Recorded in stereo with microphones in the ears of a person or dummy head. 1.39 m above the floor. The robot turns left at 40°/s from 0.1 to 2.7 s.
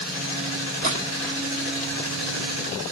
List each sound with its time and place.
0.8 s a splash: 40° right (ahead or behind), 2 m; by 1.4 s 15° right (ahead or behind), 2 m